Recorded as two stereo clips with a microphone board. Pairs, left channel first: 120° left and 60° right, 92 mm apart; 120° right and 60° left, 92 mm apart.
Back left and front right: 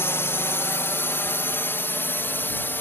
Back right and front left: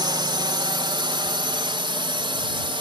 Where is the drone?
65° left; by 2.8 s 55° left.